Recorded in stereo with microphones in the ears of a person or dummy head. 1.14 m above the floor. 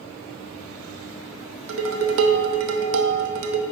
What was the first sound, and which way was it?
Dishes clattering, 70° right (ahead or behind).